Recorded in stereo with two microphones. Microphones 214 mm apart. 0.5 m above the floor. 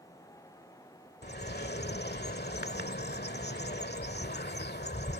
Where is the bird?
50° left (ahead or behind).